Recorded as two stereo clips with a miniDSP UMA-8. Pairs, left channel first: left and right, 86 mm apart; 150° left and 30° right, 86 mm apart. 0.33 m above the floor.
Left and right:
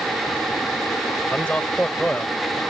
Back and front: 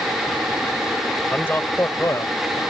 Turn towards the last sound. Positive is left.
turn(degrees=160)